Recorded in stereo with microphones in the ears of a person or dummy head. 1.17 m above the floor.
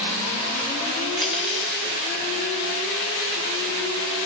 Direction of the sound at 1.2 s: 5° right (ahead or behind).